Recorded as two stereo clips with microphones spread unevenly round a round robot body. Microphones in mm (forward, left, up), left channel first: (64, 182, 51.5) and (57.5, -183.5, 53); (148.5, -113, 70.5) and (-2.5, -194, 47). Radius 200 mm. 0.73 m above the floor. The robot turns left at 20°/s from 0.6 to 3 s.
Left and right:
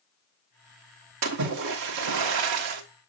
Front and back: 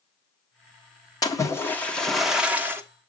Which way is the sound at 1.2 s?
45° right.